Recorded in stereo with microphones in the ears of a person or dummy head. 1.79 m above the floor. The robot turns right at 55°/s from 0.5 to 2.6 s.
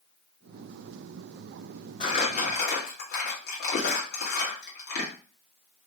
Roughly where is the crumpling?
Left.